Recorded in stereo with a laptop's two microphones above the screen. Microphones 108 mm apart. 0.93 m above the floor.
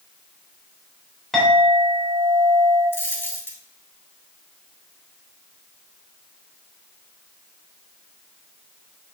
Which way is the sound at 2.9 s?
20° left (ahead or behind).